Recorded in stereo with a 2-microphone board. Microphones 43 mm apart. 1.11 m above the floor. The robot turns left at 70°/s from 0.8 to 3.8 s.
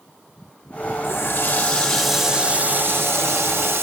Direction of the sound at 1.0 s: 75° left.